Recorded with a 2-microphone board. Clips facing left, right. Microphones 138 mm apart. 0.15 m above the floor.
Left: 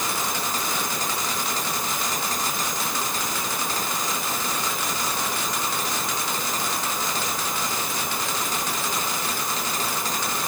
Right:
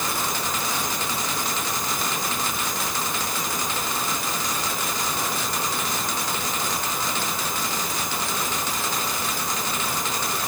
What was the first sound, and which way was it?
Only background noise.